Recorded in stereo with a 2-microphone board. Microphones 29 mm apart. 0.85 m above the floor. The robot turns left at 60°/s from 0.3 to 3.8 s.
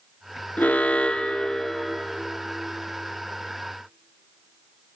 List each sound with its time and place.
0.6 s an alarm: 75° left, 0.5 m; by 2.1 s 15° right, 0.5 m